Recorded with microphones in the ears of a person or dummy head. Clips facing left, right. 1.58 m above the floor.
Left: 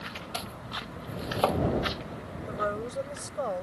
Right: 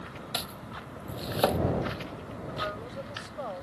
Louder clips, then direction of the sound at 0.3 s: Left 1 dB; 15° right (ahead or behind).